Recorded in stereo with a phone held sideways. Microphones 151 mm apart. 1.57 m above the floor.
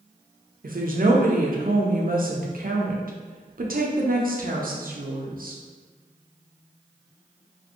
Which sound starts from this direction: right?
A woman speaking, at 0.6 s.